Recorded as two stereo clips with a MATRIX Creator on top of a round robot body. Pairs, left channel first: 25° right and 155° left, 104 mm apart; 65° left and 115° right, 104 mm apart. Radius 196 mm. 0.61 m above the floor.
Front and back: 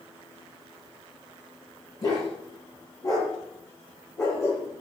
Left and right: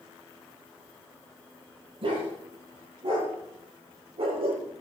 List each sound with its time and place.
2.0 s a dog barking: 75° right, 7.5 m; by 4.8 s 85° right, 8 m